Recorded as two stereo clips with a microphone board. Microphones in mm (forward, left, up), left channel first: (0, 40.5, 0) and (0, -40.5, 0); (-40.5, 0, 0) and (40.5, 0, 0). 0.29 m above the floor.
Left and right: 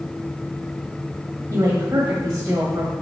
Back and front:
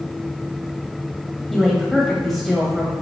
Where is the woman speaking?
95° right, 1.3 m.